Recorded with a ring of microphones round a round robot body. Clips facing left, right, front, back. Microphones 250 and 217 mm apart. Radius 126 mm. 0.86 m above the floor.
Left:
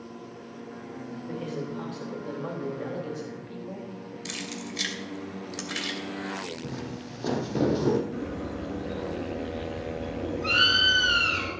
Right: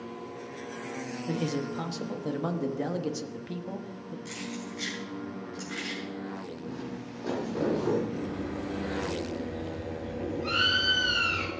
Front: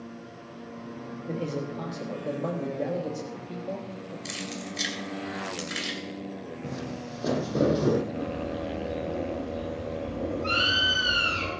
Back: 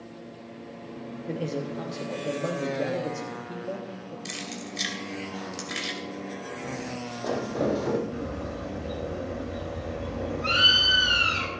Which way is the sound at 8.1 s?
160° left.